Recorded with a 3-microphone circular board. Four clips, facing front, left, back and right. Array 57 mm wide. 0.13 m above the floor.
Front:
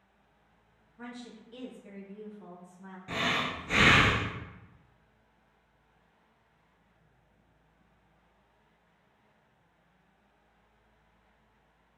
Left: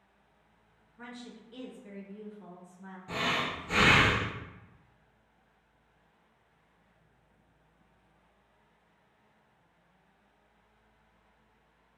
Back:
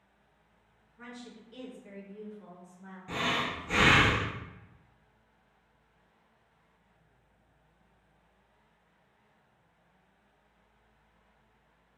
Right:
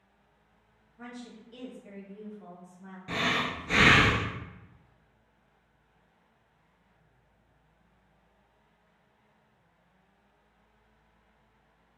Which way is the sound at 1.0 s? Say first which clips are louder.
Right 2 dB, front 2 dB; 60° left.